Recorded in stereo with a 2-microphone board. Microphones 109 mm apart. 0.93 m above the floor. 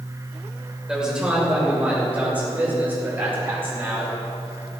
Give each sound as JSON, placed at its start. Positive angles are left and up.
{"t": 0.9, "sound": "a man speaking", "side_deg": -5, "distance_m": 3.0}